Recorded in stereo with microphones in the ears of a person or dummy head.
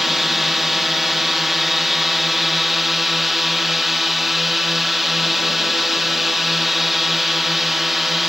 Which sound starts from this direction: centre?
A drone, at 0.0 s.